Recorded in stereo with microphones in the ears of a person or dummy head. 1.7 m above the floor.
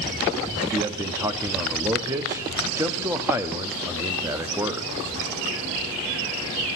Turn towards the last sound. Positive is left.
turn(degrees=-15)  # may be behind; listen again after turning